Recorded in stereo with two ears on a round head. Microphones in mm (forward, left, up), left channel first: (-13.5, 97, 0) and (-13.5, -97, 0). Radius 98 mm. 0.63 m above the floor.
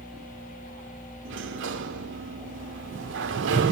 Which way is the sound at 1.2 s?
60° right (ahead or behind).